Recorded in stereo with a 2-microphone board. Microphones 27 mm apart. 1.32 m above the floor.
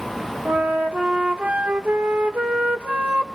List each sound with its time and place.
0.5 s a flute: 70° right (ahead or behind), 1.4 m